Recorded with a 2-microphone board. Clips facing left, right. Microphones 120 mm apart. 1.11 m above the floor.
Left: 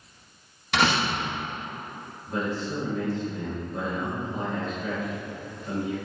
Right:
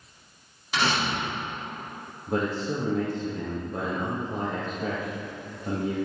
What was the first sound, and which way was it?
A door slam, 70° left (ahead or behind).